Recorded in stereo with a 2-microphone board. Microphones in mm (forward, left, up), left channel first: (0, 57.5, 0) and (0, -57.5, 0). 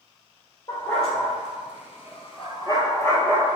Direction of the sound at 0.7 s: 55° left (ahead or behind).